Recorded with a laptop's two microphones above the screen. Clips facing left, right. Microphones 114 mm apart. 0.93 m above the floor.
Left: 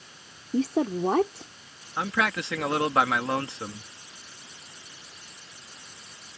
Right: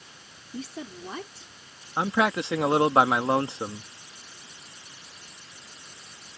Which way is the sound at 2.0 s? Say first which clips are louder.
Right 3 dB; 25° right (ahead or behind).